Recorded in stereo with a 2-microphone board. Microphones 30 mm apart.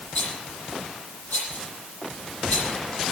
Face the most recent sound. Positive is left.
turn(degrees=70)  # may be behind; listen again after turning